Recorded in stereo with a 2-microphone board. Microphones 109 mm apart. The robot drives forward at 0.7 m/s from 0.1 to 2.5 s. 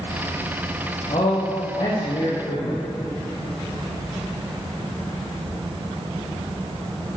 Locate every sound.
1.1 s a man speaking: 50° left (ahead or behind), 2.5 m; by 2.8 s 40° left (ahead or behind), 3 m